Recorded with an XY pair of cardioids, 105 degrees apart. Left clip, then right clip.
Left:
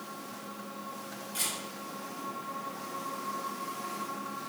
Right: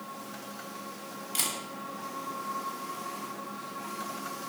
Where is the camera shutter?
65° right, 1.0 m.